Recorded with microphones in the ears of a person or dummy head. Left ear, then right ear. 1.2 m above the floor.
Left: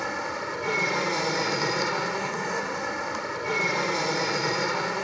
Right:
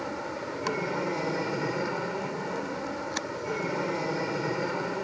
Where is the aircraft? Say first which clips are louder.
Left 4 dB; 65° left (ahead or behind).